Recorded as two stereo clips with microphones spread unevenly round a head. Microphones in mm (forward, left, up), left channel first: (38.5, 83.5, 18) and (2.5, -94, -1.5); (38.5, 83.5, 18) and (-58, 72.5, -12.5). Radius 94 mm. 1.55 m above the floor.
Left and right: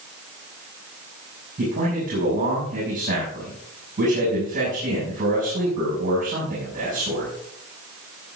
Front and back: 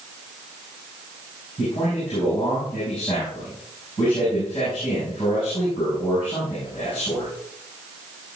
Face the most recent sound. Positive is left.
turn(degrees=-55)